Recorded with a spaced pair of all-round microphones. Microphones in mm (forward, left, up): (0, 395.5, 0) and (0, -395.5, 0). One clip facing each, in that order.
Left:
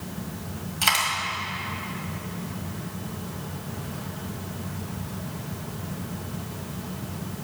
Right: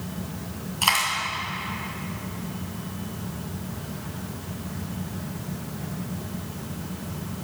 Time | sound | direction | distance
0.8 | a dropped coin | 50° left (ahead or behind) | 2 m